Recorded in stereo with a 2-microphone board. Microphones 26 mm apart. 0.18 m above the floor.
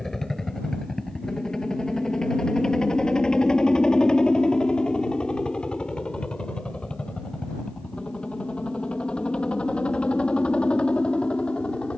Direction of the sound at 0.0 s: 20° left (ahead or behind).